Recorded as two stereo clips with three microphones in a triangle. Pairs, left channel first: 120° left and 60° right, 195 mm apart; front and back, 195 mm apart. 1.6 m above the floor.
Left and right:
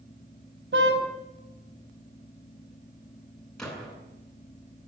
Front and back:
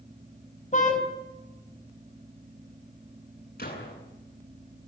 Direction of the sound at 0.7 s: 50° right.